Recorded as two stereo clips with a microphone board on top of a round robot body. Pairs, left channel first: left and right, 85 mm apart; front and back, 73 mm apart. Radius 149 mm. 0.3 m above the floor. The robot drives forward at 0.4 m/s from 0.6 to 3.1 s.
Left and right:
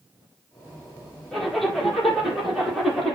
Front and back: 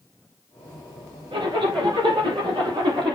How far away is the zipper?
About 6.5 m.